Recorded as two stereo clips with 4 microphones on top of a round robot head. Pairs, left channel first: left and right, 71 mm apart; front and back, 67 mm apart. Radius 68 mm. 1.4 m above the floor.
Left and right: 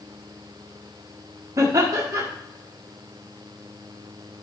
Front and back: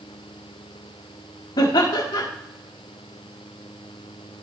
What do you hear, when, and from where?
1.6 s laughter: 35° right, 1.3 m